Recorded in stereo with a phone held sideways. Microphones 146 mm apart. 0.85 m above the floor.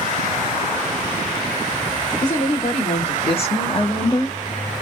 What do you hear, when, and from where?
2.2 s a woman speaking: 50° left (ahead or behind), 2 m; by 4.4 s 15° left (ahead or behind), 0.8 m